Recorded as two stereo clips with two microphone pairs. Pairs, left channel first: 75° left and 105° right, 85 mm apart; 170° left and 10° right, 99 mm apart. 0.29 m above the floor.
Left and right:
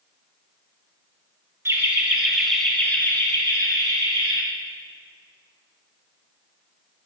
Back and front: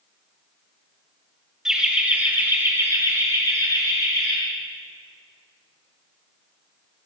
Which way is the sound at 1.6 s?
85° right.